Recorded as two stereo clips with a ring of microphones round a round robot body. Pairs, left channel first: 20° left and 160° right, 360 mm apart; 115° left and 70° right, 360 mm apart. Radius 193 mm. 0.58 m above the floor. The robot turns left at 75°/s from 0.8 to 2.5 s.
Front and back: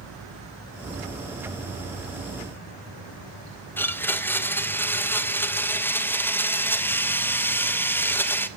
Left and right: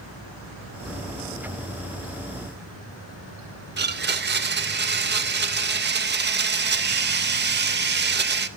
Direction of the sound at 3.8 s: 55° right.